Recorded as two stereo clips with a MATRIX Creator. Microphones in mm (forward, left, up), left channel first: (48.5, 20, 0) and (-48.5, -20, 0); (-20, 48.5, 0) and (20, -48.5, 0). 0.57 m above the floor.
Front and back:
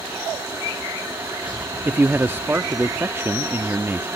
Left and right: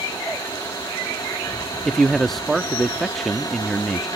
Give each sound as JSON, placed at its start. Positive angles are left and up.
{"t": 1.9, "sound": "a man speaking", "azimuth_deg": -165}